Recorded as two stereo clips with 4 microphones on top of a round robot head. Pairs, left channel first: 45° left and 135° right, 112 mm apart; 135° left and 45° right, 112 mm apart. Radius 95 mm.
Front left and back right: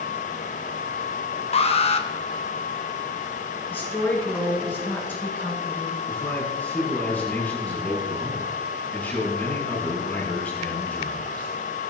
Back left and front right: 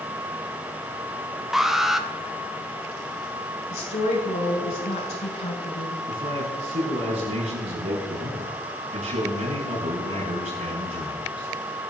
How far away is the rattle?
No rattle in this recording.